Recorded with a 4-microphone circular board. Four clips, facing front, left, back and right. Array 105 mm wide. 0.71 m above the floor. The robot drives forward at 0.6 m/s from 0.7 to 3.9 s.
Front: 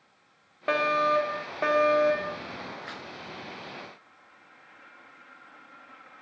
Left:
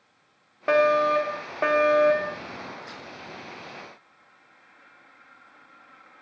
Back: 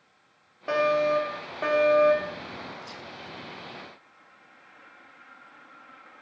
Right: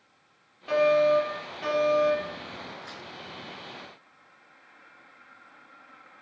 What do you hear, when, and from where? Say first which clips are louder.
0.7 s a fire alarm: left 1 dB, back 1 dB; 70° left, 3.5 m; by 2.4 s 90° left, 3 m
2.8 s tearing paper: left 2 dB, front 2 dB; straight ahead, 3.5 m; by 3.1 s 5° left, 3.5 m